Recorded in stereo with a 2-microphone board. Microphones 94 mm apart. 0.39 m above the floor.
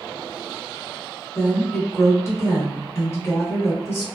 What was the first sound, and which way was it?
A woman speaking, 25° left (ahead or behind).